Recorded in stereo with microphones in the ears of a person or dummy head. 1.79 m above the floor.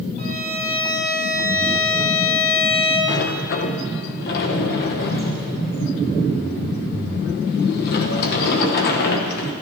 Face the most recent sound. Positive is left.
turn(degrees=55)  # may be behind; listen again after turning